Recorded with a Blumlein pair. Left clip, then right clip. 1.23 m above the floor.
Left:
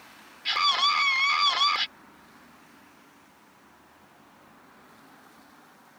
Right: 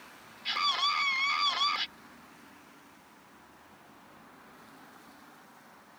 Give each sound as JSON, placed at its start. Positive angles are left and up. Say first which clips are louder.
{"t": 0.5, "sound": "a scream", "louder": "left 6 dB", "azimuth_deg": 15}